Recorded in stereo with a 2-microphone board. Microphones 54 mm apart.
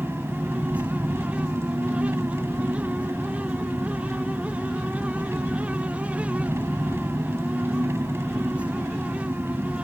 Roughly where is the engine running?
Right.